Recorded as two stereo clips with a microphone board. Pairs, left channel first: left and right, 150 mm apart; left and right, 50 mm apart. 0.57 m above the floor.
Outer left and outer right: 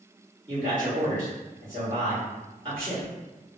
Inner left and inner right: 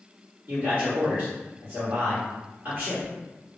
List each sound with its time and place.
0.5 s a man speaking: 35° right (ahead or behind), 1.3 m